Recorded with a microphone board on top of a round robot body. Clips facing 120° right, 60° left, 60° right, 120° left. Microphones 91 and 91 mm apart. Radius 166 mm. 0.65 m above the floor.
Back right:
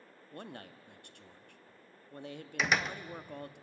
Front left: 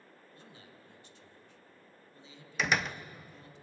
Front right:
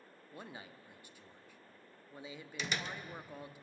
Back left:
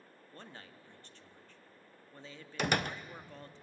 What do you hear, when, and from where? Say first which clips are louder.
0.3 s a man speaking: back right 11 dB, front right 2 dB; 140° right, 1.5 m
2.6 s a door slam: even, back left 8 dB; 150° left, 0.9 m